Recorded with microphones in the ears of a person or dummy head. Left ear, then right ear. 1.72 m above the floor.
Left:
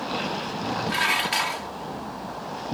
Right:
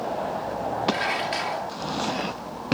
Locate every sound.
0.9 s dishes clattering: 35° left (ahead or behind)